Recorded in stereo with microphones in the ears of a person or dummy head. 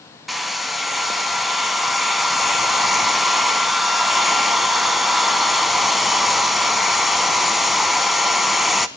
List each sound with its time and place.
0.3 s a hair dryer: centre (ahead or behind), 0.8 m